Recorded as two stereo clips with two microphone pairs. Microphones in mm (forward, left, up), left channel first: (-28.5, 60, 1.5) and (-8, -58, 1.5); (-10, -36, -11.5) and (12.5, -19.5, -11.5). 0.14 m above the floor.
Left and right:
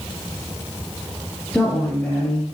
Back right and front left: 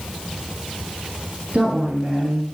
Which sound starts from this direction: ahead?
A woman speaking, at 1.5 s.